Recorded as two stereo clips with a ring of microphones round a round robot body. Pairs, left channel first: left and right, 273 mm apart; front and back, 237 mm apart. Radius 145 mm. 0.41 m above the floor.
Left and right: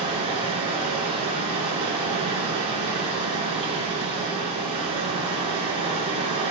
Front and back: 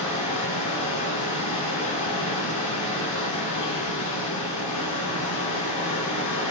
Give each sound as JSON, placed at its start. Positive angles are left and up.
{"t": 0.0, "sound": "running water", "azimuth_deg": -20, "distance_m": 2.0}